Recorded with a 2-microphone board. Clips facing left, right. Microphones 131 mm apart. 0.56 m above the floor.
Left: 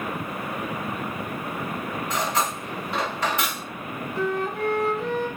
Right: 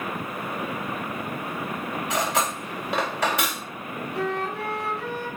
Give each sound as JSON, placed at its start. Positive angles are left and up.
{"t": 2.1, "sound": "cutlery clinking", "side_deg": -75, "distance_m": 1.5}
{"t": 4.2, "sound": "a flute", "side_deg": -75, "distance_m": 1.3}